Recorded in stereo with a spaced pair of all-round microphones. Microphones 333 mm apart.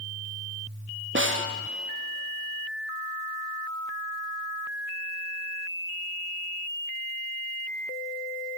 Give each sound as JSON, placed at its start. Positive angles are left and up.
{"t": 1.1, "sound": "a snare drum", "side_deg": -35, "distance_m": 0.9}